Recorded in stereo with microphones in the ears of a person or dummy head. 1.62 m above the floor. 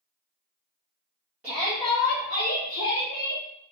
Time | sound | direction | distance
1.4 | a shout | 5° right (ahead or behind) | 0.5 m